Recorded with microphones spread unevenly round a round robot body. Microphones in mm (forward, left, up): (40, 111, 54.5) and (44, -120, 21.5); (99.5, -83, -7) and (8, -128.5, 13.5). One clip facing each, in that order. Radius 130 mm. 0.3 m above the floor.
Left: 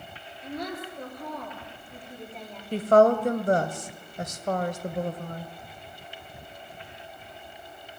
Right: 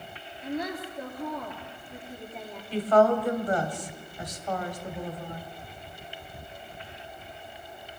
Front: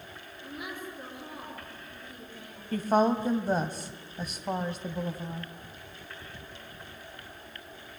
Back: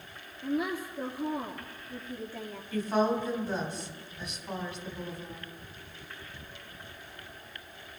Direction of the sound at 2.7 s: 55° left.